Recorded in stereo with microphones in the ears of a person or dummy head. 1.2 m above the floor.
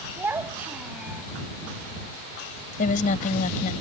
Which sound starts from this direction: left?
A woman speaking, at 2.8 s.